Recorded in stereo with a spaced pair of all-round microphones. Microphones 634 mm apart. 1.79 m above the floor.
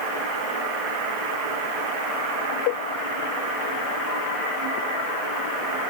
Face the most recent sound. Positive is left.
No sound to turn to.